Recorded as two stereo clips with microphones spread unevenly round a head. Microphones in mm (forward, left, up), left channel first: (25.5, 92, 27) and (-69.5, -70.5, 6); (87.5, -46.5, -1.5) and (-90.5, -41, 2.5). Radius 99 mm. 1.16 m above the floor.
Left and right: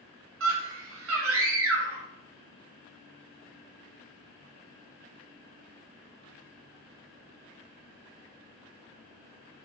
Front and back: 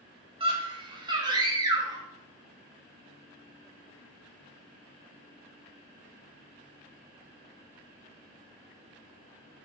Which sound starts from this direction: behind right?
A scream, at 0.4 s.